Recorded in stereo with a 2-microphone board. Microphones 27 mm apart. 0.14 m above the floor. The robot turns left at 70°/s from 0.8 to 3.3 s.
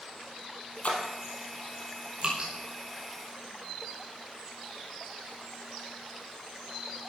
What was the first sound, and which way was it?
A splash, 50° left (ahead or behind).